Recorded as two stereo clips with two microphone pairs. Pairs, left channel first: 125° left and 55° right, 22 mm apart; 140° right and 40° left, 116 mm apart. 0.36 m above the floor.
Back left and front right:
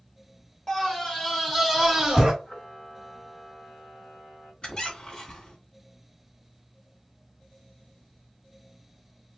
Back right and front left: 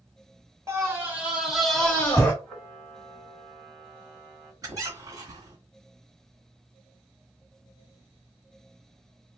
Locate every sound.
0.7 s a scream: 85° left, 1.2 m; by 2.3 s 120° right, 1.0 m
2.4 s a camera shutter: 135° left, 1.6 m
4.6 s a squeak: 95° left, 1.0 m